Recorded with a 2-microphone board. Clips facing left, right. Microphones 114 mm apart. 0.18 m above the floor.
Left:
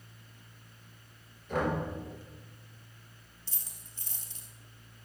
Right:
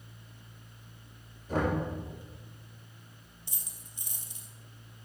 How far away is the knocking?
About 3 m.